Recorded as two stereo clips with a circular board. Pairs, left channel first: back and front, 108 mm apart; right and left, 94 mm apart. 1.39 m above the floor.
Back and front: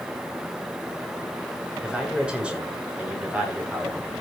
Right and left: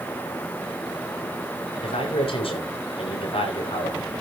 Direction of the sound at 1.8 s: 80° right.